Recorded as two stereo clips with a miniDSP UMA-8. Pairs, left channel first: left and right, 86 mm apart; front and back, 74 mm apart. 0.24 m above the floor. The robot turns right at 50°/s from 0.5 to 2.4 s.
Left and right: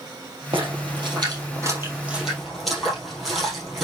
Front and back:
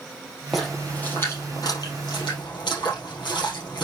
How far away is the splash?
About 5 m.